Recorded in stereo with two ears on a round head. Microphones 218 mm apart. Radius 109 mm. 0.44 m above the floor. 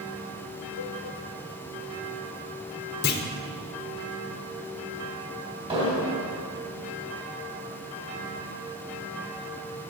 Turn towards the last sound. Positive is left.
turn(degrees=-25)  # may be behind; listen again after turning